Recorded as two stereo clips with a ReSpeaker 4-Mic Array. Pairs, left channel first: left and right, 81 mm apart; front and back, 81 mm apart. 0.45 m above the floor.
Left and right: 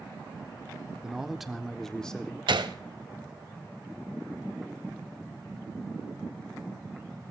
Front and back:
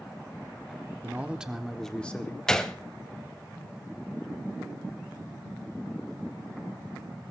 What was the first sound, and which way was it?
A man speaking, 160° right.